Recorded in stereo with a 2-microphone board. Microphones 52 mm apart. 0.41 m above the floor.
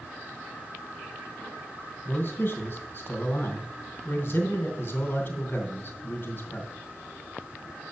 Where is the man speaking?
40° left (ahead or behind), 2.5 m.